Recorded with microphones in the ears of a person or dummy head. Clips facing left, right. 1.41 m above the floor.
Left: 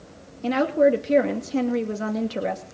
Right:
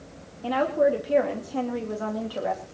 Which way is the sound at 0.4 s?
30° left (ahead or behind).